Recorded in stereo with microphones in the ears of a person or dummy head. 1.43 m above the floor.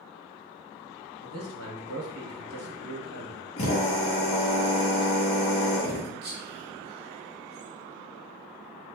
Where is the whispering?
50° right (ahead or behind), 1.4 m.